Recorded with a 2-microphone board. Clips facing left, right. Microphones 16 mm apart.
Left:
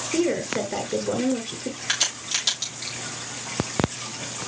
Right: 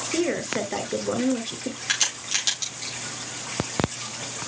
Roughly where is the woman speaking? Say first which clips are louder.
Left 2 dB; centre.